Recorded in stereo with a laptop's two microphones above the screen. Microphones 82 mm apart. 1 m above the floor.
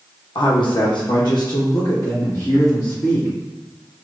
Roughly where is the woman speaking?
Left.